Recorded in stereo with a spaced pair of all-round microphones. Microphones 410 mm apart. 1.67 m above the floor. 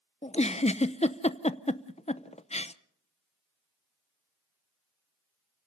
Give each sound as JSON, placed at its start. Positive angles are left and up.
{"t": 0.2, "sound": "a giggle", "side_deg": 15, "distance_m": 0.6}